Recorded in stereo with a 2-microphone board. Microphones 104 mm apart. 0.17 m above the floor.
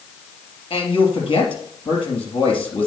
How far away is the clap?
No clap in this recording.